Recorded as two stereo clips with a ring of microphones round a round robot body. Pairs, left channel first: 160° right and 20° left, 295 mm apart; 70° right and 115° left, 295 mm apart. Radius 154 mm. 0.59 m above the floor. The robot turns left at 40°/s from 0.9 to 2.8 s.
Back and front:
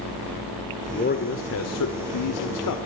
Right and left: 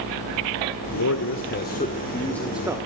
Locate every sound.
0.9 s a man speaking: 95° right, 2 m; by 2.8 s 170° right, 2 m